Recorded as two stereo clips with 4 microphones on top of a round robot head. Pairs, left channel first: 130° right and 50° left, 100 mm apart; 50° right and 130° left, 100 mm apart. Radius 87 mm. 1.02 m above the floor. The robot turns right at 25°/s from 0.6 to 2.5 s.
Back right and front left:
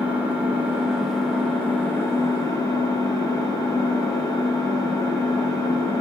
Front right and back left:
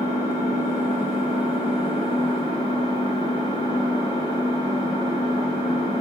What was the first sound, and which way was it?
An engine running, 125° left.